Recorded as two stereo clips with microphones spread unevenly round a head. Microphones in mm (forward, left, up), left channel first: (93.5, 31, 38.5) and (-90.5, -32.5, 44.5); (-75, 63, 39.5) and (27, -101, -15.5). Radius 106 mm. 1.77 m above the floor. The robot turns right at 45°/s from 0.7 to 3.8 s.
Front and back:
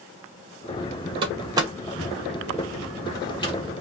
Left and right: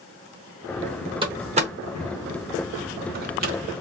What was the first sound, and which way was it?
A door slam, 130° right.